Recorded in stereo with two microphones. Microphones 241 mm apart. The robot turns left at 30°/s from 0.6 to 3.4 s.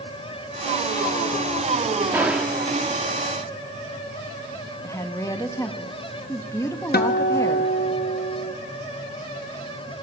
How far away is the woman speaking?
About 1.1 m.